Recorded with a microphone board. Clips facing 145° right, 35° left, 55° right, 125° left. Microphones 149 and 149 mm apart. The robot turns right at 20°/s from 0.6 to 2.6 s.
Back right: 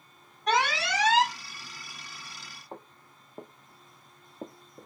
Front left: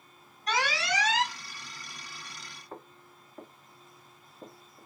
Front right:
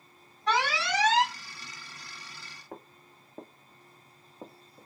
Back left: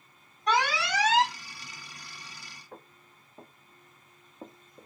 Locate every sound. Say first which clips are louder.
0.5 s an alarm: back right 3 dB, back left 1 dB; 165° right, 4 m; by 1.4 s 150° right, 4 m
2.7 s footsteps: back right 1 dB, front right 5 dB; 75° right, 1.7 m; by 4.9 s 160° right, 1.1 m